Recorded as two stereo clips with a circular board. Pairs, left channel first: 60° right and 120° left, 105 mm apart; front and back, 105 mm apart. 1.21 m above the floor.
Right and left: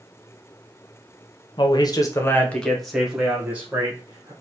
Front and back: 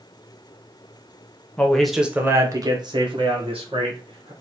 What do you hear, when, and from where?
1.6 s a man speaking: 75° right, 0.7 m; by 4.3 s 175° right, 1.5 m